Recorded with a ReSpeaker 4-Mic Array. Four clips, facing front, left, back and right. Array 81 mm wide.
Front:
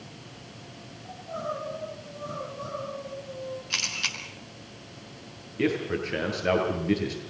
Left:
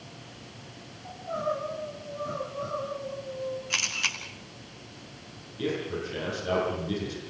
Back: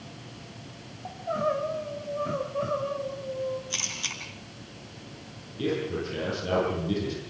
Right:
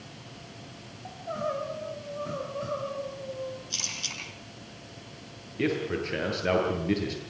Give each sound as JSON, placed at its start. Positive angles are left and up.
{"t": 1.1, "sound": "crying", "azimuth_deg": -165, "distance_m": 4.0}
{"t": 3.7, "sound": "a camera shutter", "azimuth_deg": 65, "distance_m": 5.0}
{"t": 5.6, "sound": "a man speaking", "azimuth_deg": -35, "distance_m": 8.5}